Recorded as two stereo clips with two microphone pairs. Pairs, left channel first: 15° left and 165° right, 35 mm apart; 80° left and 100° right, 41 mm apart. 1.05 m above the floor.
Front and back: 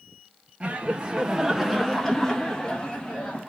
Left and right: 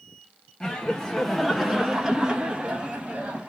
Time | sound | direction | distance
0.6 | laughter | 145° left | 0.8 m